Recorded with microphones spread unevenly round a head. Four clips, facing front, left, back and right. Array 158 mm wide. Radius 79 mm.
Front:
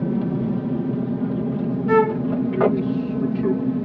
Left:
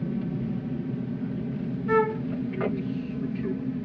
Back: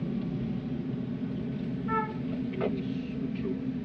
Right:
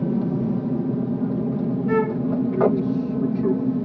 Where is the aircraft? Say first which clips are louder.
Right 8 dB, front 10 dB; 40° right.